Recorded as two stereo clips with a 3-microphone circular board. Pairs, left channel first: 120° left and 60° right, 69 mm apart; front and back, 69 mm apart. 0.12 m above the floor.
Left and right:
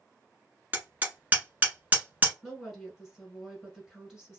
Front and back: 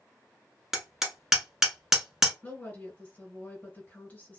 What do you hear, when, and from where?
0.7 s hammering: 100° right, 0.9 m
2.4 s a woman speaking: 20° left, 1.4 m